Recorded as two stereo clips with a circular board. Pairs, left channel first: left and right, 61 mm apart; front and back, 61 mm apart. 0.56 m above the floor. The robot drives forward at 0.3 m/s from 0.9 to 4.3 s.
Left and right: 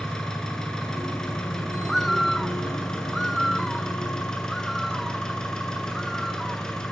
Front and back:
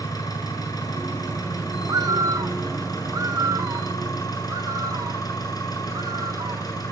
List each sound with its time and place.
0.0 s an engine running: 10° left, 9 m
1.8 s a bird: 175° left, 0.7 m; by 6.7 s straight behind, 1.3 m